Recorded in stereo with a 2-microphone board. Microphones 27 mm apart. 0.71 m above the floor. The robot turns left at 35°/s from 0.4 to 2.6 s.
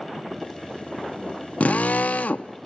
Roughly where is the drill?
Left.